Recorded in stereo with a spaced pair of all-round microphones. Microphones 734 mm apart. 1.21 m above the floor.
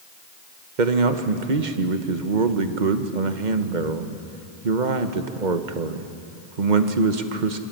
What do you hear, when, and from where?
0.8 s a man speaking: 80° right, 1.2 m